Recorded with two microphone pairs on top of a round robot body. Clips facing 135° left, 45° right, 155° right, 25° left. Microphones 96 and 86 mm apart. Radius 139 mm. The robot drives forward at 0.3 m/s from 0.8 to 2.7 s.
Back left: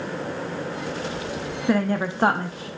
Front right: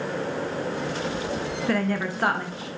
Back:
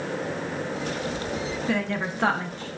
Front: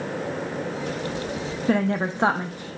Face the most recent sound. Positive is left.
turn(degrees=110)